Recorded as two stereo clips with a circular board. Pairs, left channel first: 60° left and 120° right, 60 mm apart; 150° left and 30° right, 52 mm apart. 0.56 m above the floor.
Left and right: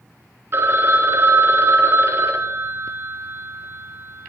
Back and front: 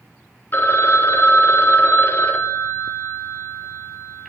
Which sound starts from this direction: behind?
A phone ringing, at 0.5 s.